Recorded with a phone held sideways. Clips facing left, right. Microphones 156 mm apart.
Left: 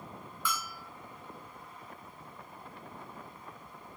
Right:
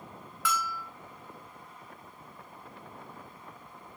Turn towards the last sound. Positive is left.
turn(degrees=-80)